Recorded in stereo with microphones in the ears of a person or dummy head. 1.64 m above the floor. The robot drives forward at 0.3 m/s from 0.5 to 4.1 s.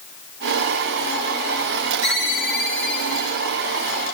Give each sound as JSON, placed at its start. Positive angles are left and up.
{"t": 2.0, "sound": "a ringtone", "side_deg": 15, "distance_m": 1.7}